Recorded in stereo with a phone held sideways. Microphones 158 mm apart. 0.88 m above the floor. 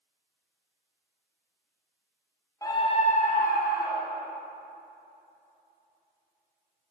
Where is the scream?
20° left (ahead or behind), 0.6 m; by 4.3 s 70° left (ahead or behind), 1.7 m.